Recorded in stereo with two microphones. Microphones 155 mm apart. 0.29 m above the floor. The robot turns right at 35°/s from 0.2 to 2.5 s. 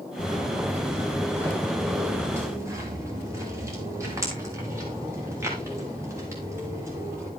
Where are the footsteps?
60° left (ahead or behind), 4 m; by 7.3 s 20° right (ahead or behind), 8.5 m.